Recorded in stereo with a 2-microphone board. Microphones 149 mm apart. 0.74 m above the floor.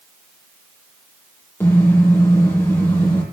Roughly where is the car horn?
Centre.